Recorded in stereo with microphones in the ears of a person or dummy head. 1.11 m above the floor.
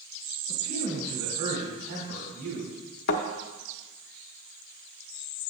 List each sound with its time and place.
0.5 s a man speaking: 70° right (ahead or behind), 3.5 m
3.1 s a thud: 55° left (ahead or behind), 1.0 m